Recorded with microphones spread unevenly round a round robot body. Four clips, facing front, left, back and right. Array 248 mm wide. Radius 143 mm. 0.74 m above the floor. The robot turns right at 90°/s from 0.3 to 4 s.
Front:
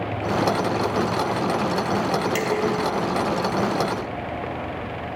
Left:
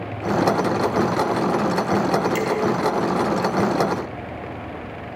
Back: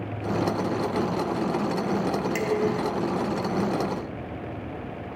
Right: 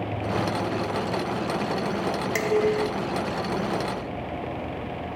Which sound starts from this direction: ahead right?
Dishes clattering, at 2.4 s.